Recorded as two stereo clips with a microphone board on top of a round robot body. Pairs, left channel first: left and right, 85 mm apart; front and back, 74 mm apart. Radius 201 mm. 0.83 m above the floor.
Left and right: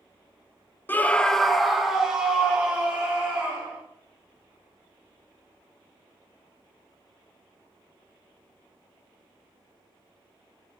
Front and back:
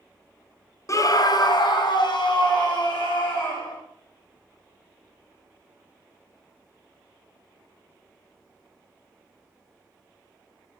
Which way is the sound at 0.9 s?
30° left.